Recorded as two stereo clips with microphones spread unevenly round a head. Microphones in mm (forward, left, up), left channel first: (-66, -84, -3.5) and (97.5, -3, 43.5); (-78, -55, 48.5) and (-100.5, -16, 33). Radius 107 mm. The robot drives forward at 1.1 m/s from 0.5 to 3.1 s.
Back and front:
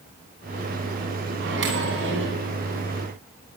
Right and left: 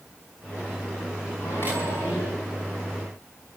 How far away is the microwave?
About 10 m.